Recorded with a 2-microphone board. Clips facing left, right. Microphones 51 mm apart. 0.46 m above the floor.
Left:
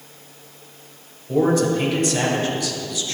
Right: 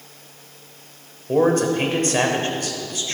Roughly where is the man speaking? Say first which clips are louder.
Right 1 dB; right.